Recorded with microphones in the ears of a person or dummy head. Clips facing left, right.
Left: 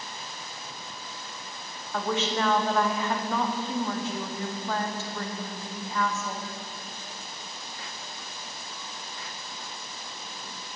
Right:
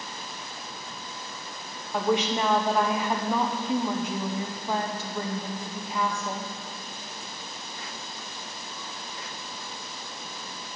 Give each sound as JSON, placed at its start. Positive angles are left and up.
{"t": 1.9, "sound": "a woman speaking", "side_deg": -10, "distance_m": 0.7}